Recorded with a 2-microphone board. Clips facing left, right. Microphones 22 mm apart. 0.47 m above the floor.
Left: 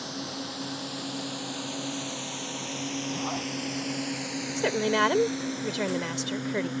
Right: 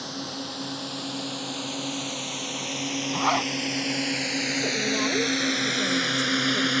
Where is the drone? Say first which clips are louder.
Right 2 dB; 5° right (ahead or behind); by 6.8 s 75° right (ahead or behind).